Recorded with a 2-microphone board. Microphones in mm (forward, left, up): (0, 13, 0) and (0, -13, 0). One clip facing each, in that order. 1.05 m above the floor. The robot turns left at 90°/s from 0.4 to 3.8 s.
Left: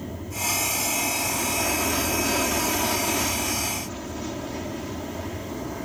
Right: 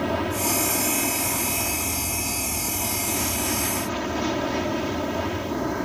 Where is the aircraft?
90° right; by 5.8 s 40° right.